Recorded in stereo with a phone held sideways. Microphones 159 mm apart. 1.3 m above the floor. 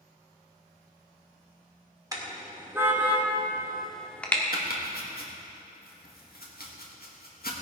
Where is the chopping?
85° left, 1.9 m.